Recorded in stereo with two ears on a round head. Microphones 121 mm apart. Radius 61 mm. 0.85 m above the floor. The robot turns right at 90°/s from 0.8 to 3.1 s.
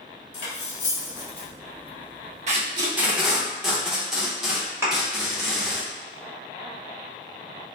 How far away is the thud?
About 1.2 m.